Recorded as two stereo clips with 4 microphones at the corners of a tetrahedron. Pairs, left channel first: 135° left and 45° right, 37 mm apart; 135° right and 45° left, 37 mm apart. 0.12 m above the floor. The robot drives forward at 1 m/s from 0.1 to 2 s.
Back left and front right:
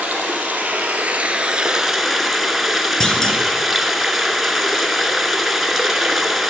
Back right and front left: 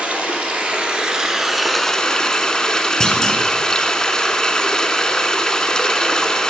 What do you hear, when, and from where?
0.0 s running water: 5° right, 1.9 m; by 6.5 s 125° right, 0.8 m
3.0 s a clunk: straight behind, 1.0 m